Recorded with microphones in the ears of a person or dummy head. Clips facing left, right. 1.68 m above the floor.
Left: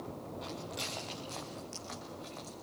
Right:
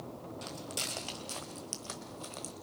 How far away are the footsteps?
About 3.5 m.